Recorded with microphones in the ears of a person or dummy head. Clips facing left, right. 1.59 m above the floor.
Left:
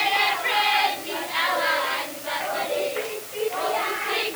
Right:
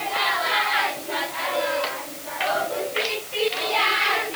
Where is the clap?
No clap in this recording.